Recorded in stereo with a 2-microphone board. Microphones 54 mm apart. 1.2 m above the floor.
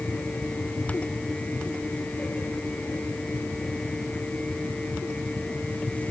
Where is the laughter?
I don't hear laughter.